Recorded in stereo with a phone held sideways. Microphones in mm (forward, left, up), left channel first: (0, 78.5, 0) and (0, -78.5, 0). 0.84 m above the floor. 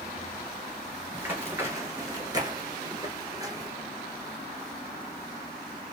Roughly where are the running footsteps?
Centre.